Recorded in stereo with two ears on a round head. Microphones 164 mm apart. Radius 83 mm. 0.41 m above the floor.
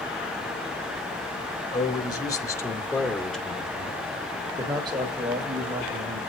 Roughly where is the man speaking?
Left.